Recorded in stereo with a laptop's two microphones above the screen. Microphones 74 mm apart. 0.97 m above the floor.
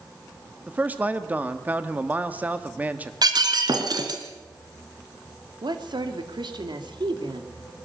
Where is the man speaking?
20° right (ahead or behind), 1.6 m.